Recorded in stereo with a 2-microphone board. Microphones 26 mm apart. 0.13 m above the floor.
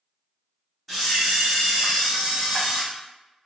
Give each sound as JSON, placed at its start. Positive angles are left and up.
{"t": 0.9, "sound": "a camera shutter", "side_deg": 0, "distance_m": 1.9}